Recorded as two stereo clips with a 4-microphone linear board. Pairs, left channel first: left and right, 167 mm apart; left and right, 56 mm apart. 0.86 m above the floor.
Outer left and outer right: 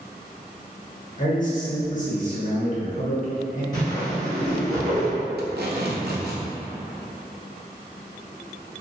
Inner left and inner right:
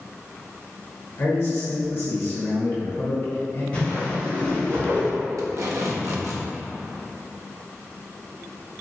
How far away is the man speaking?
About 1.1 m.